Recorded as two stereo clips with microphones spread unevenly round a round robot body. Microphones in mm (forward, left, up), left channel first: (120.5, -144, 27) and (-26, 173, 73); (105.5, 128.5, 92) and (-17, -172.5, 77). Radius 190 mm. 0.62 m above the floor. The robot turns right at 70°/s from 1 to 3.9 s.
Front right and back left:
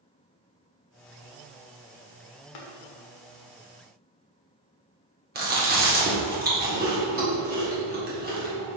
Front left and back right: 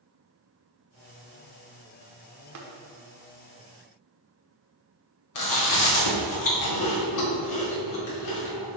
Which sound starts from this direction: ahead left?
Chewing, at 5.3 s.